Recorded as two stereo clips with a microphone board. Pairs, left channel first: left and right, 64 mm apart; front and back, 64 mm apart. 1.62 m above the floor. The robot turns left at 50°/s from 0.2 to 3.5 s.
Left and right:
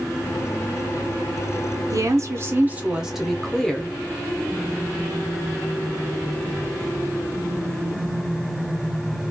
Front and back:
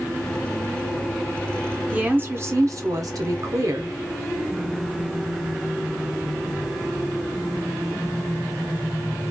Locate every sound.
1.9 s a woman speaking: 110° right, 0.7 m; by 4.0 s 170° left, 0.7 m